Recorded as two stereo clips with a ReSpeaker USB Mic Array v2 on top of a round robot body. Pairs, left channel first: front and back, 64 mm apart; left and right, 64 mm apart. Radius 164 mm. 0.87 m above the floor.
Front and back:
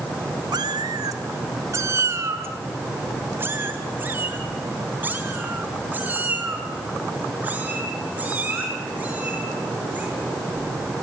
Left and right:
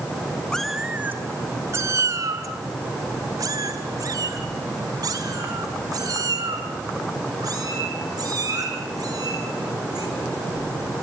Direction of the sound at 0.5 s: 170° left.